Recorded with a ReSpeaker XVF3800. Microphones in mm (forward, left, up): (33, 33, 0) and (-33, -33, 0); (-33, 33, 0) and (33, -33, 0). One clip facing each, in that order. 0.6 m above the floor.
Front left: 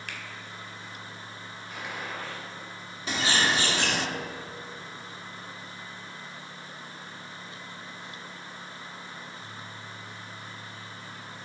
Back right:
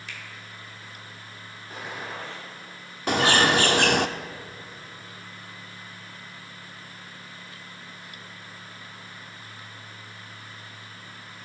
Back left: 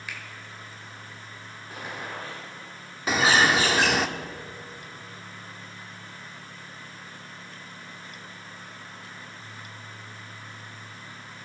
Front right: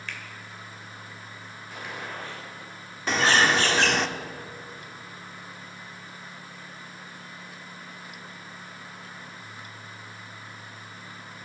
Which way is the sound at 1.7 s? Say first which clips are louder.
Back right 1 dB, back left 1 dB; straight behind.